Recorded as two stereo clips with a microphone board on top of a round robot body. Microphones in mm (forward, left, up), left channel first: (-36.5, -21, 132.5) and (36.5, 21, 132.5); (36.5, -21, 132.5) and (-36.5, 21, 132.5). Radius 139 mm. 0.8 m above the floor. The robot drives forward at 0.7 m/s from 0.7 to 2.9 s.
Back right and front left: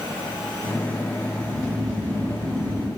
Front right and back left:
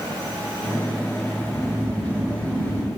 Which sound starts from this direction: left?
Snoring, at 1.4 s.